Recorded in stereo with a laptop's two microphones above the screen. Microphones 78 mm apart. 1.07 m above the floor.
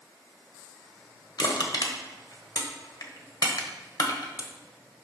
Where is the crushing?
55° left (ahead or behind), 1.2 m.